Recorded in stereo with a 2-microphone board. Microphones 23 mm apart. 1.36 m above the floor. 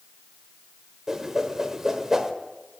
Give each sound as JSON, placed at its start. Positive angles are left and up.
{"t": 1.1, "sound": "a whoosh", "side_deg": -15, "distance_m": 1.3}